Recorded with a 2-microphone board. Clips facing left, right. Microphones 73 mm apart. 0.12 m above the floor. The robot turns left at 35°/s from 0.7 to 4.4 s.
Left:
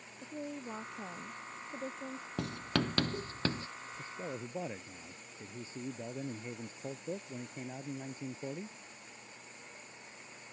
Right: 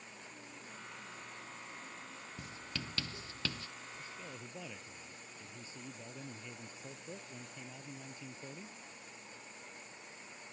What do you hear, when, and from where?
0.2 s a woman speaking: 115° left; by 2.3 s 60° left
2.4 s writing: 70° left (ahead or behind); by 3.7 s 30° left (ahead or behind)
4.0 s a man speaking: 45° left (ahead or behind); by 8.8 s 35° left (ahead or behind)